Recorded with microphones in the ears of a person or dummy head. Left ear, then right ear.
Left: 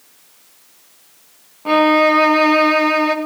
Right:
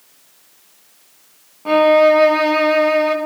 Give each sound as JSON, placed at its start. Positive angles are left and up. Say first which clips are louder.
{"t": 1.6, "sound": "a violin", "louder": "right 2 dB", "side_deg": 5, "distance_m": 0.9}